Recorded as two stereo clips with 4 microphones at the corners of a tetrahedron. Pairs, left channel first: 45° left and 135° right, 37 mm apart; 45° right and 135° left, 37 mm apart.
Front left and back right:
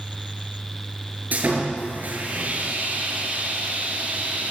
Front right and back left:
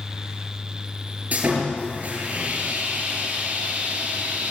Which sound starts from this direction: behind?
Sawing, at 1.3 s.